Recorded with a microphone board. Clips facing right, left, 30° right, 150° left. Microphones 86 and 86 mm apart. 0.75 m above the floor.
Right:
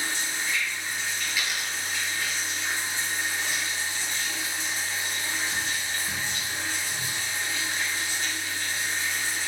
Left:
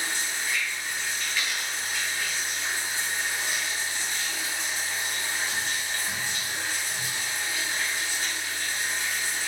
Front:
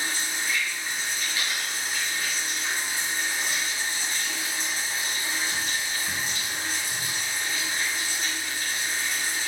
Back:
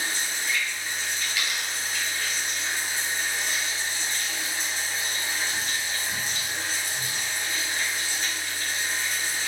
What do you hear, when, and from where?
0.0 s running water: 15° left, 1.6 m
1.3 s a dropped coin: 15° right, 0.8 m